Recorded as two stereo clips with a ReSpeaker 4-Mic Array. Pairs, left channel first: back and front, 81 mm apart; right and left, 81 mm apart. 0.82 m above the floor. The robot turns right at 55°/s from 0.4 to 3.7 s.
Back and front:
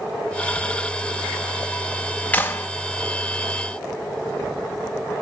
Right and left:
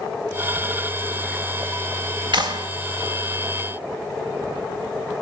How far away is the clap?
About 1.7 m.